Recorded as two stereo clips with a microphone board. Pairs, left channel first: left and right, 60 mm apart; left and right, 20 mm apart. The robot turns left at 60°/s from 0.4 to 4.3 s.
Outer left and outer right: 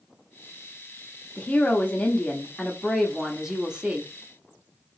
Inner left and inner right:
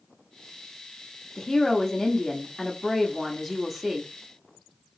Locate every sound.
1.4 s a woman speaking: 20° left (ahead or behind), 0.7 m; by 4.1 s 20° right (ahead or behind), 0.7 m